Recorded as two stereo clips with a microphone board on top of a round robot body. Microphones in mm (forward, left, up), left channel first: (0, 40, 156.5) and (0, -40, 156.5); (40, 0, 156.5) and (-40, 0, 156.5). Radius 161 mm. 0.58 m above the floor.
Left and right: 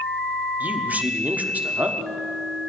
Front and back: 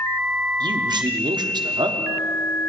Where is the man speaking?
160° right, 1.3 m.